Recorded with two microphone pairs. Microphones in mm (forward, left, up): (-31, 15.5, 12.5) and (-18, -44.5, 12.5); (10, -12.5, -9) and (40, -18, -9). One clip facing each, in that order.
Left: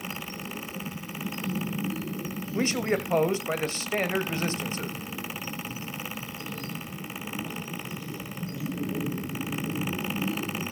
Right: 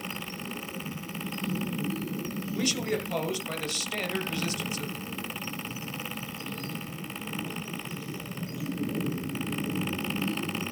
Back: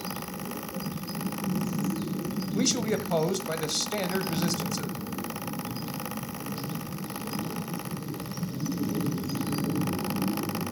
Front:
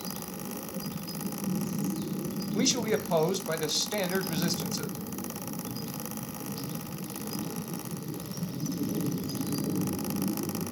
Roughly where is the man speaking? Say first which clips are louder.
Left 4 dB, even; left.